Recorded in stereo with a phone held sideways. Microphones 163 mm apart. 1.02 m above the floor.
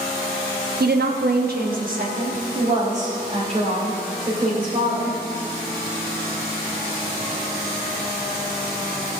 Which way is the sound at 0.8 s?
70° right (ahead or behind).